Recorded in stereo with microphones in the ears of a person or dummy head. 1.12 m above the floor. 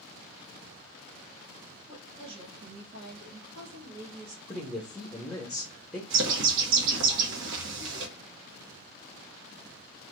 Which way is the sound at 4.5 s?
5° left (ahead or behind).